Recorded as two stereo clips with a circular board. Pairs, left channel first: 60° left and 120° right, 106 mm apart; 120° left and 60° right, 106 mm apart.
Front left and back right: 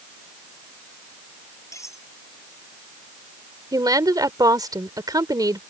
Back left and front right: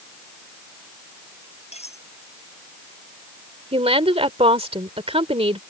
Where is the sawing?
I don't hear sawing.